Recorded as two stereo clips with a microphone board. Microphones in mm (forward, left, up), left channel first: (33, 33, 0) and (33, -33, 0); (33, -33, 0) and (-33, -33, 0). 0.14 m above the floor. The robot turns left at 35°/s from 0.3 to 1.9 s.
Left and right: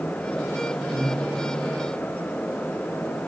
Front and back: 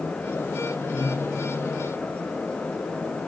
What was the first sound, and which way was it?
Breathing, 20° left.